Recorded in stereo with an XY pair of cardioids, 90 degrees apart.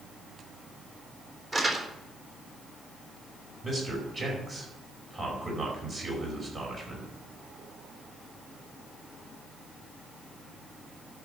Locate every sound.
1.5 s crumpling: 30° right, 3.5 m
3.6 s a man speaking: 40° right, 5 m